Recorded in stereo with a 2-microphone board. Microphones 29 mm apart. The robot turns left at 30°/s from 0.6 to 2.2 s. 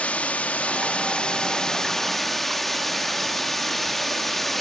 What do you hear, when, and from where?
0.0 s running water: 50° left, 1.7 m; by 4.6 s 5° left, 1.7 m